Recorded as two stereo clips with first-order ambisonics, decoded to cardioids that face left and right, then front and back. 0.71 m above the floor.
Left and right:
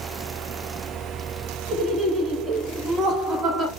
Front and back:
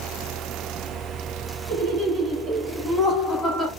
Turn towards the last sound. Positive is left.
turn(degrees=-55)